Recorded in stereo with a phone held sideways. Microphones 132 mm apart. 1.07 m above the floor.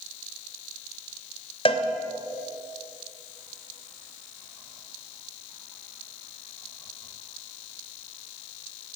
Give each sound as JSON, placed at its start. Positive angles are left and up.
{"t": 1.6, "sound": "a cowbell", "side_deg": 40, "distance_m": 2.0}